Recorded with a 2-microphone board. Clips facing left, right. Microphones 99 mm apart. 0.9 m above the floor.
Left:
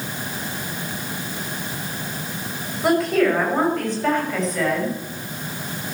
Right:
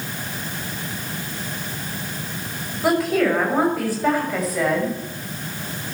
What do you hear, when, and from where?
2.8 s a woman speaking: centre (ahead or behind), 5.5 m; by 5.0 s 10° right (ahead or behind), 6.5 m